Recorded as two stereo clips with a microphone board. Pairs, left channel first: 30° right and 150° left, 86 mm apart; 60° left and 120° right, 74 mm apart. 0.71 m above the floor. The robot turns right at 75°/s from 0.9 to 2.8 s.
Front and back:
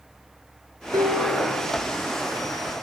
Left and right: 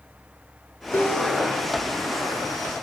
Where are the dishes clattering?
115° left, 4.5 m; by 1.9 s 175° right, 4.5 m.